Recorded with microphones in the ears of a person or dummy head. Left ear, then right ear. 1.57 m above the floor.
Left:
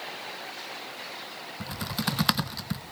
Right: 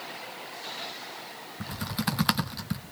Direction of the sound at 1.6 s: 5° left (ahead or behind).